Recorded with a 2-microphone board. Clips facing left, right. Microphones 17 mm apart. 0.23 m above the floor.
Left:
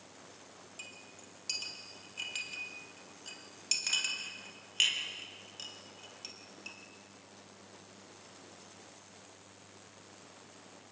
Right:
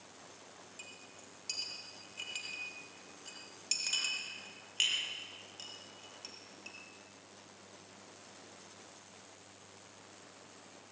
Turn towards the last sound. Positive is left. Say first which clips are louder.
# left 3 dB
turn(degrees=5)  # may be behind; listen again after turning